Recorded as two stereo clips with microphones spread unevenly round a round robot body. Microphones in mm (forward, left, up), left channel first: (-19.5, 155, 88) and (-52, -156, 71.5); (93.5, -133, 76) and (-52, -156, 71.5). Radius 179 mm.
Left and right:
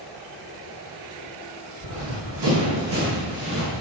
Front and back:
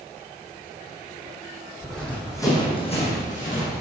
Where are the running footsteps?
80° right, 2.5 m; by 3.8 s 15° right, 3 m.